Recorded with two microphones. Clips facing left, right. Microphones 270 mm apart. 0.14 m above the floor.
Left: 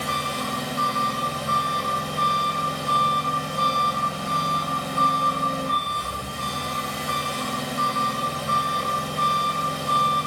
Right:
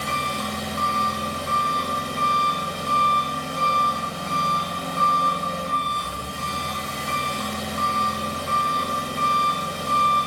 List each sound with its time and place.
0.0 s an engine running: 5° left (ahead or behind), 1.0 m